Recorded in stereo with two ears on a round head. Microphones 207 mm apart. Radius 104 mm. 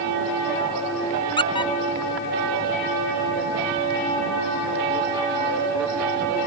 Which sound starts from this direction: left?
A squeak, at 1.4 s.